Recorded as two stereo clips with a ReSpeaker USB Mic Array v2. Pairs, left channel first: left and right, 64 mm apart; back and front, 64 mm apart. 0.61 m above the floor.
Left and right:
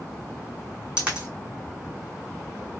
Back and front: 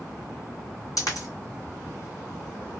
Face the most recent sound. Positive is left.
turn(degrees=-165)